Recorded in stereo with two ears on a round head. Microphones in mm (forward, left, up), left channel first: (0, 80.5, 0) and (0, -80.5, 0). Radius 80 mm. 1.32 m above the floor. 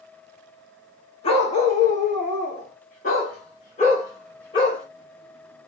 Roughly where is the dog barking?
Left.